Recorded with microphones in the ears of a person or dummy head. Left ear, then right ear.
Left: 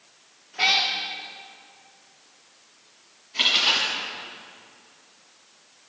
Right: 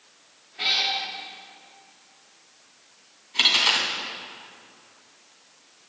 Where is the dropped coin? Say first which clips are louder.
Right 1 dB; 15° right (ahead or behind), 1.7 m.